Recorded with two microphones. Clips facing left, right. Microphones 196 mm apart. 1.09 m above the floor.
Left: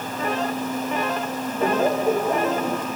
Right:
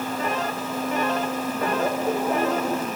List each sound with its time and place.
1.6 s laughter: 30° left (ahead or behind), 1.1 m; by 2.9 s 10° left (ahead or behind), 1.5 m